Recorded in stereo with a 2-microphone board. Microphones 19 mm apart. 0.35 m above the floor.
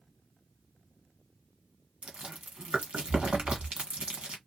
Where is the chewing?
75° right (ahead or behind), 1.2 m.